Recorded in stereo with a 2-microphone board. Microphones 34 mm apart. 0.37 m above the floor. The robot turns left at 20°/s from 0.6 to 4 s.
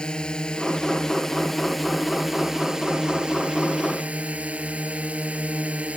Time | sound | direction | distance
0.0 | a drone | 30° left | ?